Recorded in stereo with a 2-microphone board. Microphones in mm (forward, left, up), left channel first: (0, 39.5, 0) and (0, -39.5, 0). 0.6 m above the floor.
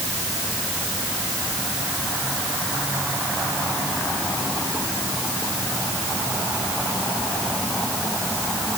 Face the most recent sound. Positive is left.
No sound to turn to.